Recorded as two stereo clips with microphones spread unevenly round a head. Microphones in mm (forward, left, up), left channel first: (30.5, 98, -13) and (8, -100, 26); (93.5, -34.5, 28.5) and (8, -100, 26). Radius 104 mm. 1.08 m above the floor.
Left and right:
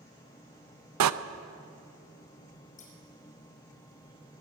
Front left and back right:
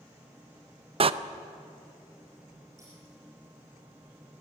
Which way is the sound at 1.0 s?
105° right.